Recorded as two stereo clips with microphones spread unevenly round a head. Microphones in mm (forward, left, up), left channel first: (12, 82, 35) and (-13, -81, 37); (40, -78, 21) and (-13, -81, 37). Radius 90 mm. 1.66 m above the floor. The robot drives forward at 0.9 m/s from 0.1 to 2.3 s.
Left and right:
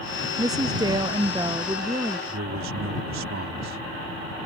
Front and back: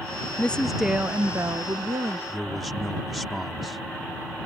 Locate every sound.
0.4 s a woman speaking: 55° right; by 2.2 s 175° right
2.3 s a man speaking: 95° right